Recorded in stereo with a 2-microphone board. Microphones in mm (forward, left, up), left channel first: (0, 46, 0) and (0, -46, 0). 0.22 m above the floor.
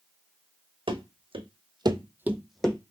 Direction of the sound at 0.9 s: 75° right (ahead or behind).